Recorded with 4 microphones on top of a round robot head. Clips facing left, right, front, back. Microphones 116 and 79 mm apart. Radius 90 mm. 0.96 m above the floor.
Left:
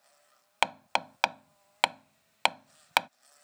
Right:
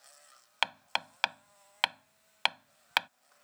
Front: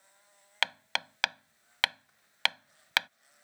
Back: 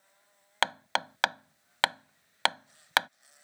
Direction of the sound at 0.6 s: 130° left.